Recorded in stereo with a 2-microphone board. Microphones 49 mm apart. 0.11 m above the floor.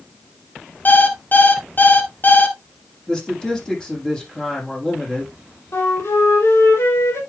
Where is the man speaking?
15° left (ahead or behind), 5.5 m.